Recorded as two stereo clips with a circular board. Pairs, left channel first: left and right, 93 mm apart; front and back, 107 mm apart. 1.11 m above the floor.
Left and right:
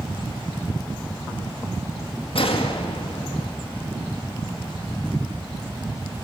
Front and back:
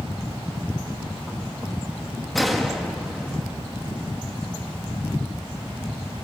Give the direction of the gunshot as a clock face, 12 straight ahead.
9 o'clock.